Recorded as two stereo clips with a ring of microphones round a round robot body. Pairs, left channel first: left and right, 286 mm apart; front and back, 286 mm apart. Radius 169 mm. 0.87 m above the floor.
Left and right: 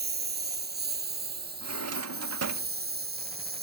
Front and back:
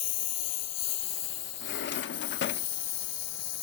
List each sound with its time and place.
0.0 s a lawn mower: 35° right
1.6 s a drawer: 55° right